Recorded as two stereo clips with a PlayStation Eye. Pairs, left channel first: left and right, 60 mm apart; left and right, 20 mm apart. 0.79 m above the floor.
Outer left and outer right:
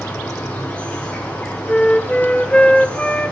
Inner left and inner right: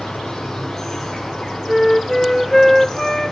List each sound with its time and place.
0.0 s an insect: 20° left (ahead or behind), 3.5 m
1.7 s a flute: 20° left (ahead or behind), 0.9 m